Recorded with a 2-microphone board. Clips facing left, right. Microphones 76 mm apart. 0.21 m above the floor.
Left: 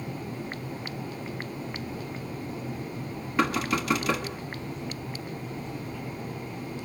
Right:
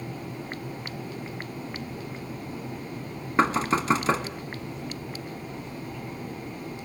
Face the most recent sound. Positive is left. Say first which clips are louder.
# right 3 dB
turn(degrees=-35)  # may be behind; listen again after turning